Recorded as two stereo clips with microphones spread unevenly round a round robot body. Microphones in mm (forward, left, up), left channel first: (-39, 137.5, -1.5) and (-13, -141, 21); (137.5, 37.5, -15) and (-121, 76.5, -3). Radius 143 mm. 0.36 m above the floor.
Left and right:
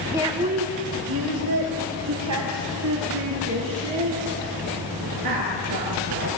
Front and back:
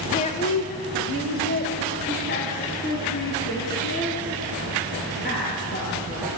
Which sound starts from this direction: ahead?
A woman speaking, at 0.1 s.